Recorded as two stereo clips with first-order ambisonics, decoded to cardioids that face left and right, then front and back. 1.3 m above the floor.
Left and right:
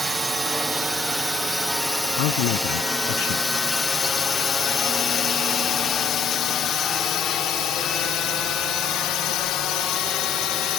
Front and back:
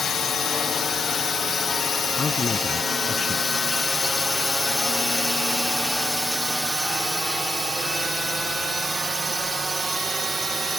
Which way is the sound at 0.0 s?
25° right.